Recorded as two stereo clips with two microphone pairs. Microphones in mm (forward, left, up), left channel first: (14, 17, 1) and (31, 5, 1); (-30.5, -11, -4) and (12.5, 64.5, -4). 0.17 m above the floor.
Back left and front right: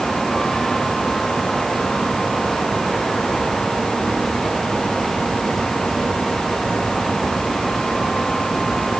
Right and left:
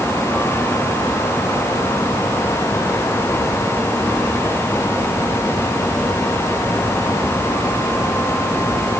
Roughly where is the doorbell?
I don't hear a doorbell.